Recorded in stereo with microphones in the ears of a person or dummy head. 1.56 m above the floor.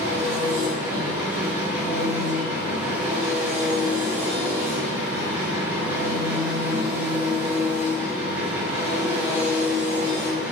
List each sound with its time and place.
0.0 s an engine running: 5° right (ahead or behind), 1.0 m